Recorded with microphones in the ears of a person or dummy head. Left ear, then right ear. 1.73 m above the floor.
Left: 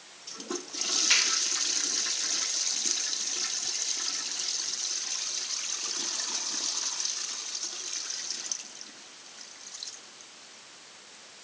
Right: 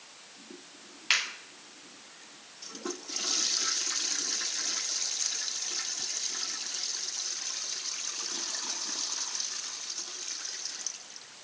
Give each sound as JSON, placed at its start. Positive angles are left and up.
{"t": 1.1, "sound": "a finger snap", "side_deg": -15, "distance_m": 1.7}